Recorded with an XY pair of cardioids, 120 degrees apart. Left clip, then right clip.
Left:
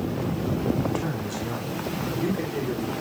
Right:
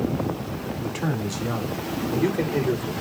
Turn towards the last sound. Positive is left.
turn(degrees=-50)